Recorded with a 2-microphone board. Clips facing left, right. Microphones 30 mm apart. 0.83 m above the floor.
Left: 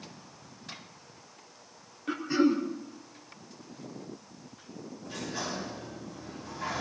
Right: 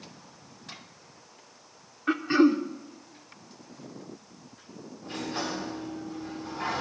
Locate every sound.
2.1 s throat clearing: 50° right (ahead or behind), 1.8 m
5.0 s a sliding door: 55° right (ahead or behind), 7.5 m